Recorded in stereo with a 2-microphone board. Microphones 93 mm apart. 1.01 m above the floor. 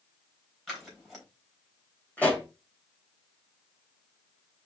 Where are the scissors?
5° left (ahead or behind), 3 m.